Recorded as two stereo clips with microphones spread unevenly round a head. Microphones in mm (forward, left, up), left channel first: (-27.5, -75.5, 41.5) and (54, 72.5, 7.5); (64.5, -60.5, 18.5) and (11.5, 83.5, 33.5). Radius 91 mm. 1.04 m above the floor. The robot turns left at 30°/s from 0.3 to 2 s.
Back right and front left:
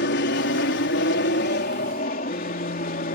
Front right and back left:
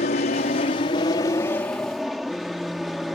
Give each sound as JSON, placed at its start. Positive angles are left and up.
{"t": 0.0, "sound": "an aircraft", "azimuth_deg": -110}